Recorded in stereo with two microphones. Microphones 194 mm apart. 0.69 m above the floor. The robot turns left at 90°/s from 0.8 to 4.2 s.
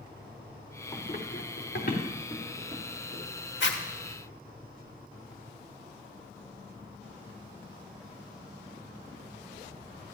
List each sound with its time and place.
0.9 s running footsteps: 30° left (ahead or behind), 2.5 m; by 3.2 s 75° right (ahead or behind), 4 m
3.6 s a zipper: 70° left (ahead or behind), 1.3 m; by 3.8 s 60° left (ahead or behind), 1.3 m